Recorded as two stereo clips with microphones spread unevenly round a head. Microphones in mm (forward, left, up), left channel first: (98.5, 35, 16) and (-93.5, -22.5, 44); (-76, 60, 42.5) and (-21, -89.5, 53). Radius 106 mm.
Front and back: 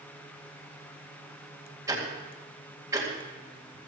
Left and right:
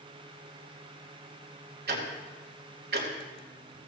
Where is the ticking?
90° right, 2.5 m.